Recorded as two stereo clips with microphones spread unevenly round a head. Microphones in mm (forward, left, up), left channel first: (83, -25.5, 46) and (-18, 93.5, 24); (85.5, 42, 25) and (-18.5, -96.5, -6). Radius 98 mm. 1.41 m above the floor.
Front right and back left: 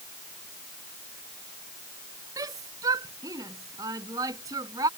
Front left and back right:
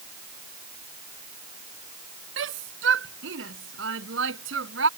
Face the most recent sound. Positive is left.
turn(degrees=-155)